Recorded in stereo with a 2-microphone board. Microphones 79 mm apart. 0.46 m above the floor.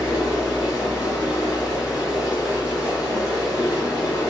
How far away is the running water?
About 1.5 m.